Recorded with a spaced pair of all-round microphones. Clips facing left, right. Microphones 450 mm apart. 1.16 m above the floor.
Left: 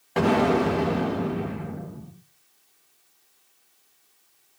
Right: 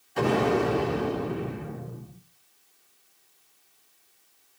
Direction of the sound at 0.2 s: 70° left (ahead or behind).